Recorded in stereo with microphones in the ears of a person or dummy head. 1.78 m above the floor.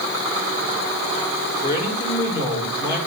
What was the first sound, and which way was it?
A man speaking, 60° left (ahead or behind).